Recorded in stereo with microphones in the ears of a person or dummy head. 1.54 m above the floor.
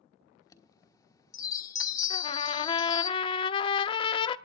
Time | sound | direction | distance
0.4 | a chime | 20° left (ahead or behind) | 1.4 m
2.1 | a trumpet | 30° left (ahead or behind) | 0.6 m